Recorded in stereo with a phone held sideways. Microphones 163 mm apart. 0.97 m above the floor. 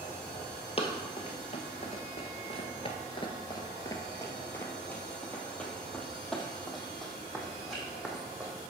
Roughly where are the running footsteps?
Left.